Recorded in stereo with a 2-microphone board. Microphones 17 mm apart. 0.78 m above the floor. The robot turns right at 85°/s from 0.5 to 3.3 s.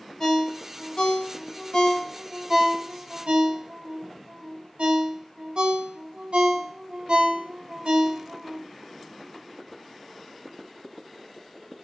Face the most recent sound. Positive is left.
turn(degrees=-80)